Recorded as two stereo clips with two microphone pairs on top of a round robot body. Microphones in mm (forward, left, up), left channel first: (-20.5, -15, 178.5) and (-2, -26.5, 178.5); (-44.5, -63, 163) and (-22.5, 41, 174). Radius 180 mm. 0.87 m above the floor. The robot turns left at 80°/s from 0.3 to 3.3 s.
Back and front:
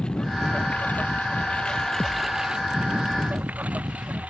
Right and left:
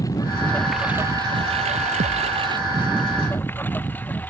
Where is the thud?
90° left; by 2.4 s 60° left.